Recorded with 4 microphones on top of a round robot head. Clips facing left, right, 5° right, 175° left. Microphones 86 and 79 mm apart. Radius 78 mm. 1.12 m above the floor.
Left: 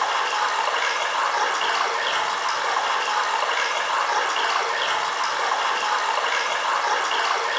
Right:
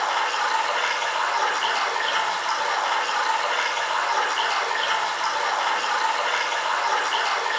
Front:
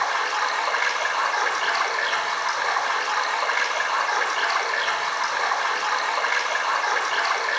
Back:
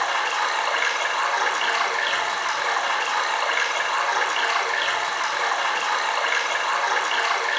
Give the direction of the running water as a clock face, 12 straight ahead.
10 o'clock.